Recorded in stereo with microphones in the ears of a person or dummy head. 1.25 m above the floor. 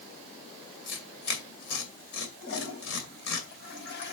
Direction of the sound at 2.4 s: 60° left (ahead or behind).